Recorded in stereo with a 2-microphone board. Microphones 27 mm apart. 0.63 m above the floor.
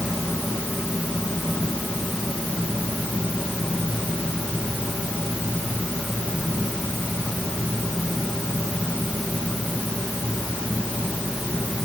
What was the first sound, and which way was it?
Only background noise.